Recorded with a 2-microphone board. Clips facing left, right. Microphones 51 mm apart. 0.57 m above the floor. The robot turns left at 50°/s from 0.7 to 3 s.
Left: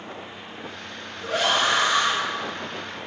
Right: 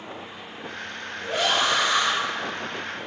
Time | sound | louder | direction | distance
1.2 | a scream | left 1 dB | 75° left | 4.5 m